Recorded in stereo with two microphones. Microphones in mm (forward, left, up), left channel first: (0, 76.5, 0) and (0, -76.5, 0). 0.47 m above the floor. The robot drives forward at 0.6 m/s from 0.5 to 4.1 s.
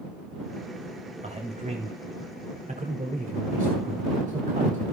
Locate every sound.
1.2 s a man speaking: 45° right (ahead or behind), 2.5 m; by 4.8 s 60° right (ahead or behind), 2 m